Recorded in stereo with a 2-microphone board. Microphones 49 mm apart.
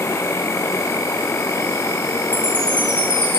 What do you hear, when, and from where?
0.0 s an insect: 90° left, 1.0 m
2.3 s a chime: 80° left, 3 m